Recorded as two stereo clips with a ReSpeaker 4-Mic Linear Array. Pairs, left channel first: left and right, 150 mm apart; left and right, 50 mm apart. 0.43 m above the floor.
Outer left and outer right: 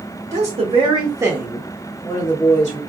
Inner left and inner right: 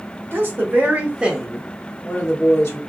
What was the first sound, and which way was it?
A woman speaking, 50° right (ahead or behind).